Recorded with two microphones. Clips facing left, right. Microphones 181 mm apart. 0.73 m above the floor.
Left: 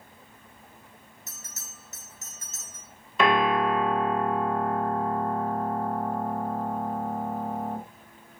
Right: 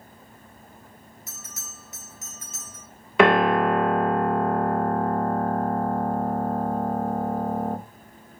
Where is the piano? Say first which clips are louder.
Right 5 dB; 75° right (ahead or behind), 0.8 m.